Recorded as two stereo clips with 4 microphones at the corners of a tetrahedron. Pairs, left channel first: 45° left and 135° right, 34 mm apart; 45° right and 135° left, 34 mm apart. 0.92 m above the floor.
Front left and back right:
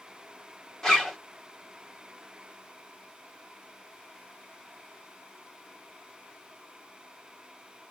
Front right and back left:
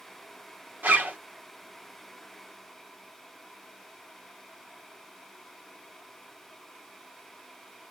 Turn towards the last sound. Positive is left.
turn(degrees=115)